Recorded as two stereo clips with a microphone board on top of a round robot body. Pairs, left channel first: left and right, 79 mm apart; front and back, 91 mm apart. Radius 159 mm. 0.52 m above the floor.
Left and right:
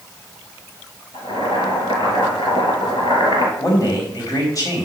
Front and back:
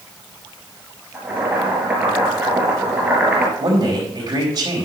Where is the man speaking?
125° left, 3.5 m.